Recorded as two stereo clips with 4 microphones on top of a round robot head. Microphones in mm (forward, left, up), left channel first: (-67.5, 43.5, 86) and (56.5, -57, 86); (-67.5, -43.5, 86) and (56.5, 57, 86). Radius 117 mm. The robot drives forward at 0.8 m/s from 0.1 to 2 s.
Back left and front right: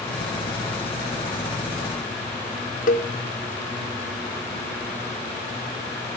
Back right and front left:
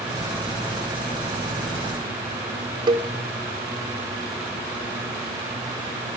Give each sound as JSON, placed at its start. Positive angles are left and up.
{"t": 2.9, "sound": "a cowbell", "azimuth_deg": 100, "distance_m": 1.4}